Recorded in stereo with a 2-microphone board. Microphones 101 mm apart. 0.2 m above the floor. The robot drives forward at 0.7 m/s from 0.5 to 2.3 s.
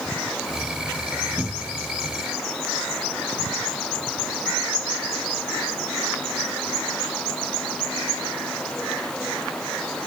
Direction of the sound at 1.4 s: 5° left (ahead or behind).